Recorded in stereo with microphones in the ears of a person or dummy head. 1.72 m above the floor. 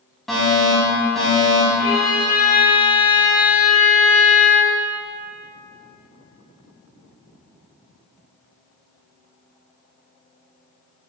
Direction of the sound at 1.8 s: 40° left (ahead or behind).